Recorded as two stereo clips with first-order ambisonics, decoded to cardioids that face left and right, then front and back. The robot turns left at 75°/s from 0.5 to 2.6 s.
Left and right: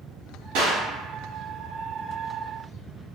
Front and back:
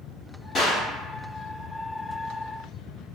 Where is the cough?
I don't hear a cough.